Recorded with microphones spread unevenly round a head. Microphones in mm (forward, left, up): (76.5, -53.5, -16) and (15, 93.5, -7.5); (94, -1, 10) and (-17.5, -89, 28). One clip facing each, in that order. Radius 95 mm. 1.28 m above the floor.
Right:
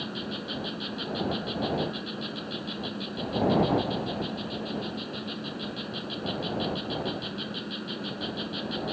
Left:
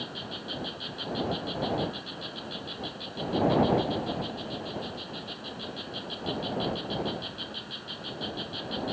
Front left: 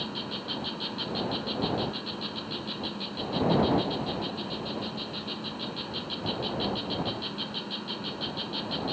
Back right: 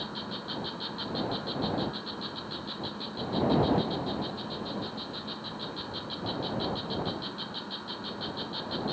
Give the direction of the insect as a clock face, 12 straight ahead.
1 o'clock.